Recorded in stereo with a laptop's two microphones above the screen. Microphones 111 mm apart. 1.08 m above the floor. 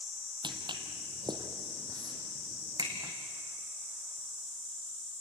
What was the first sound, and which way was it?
Footsteps, 45° right (ahead or behind).